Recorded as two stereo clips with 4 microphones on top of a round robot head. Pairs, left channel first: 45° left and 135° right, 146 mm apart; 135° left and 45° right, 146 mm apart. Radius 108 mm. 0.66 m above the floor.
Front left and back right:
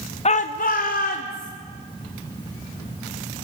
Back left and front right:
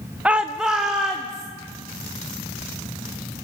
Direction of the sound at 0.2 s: 35° left.